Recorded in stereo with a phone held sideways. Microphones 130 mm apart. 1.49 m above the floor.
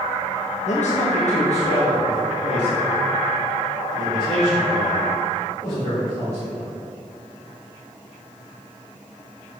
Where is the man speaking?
65° left (ahead or behind), 0.7 m; by 6.7 s 50° left (ahead or behind), 4.5 m.